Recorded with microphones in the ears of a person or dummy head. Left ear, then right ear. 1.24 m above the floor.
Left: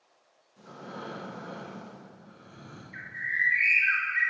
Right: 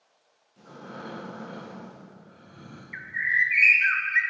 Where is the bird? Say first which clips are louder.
Right 6 dB; 60° right (ahead or behind), 0.6 m.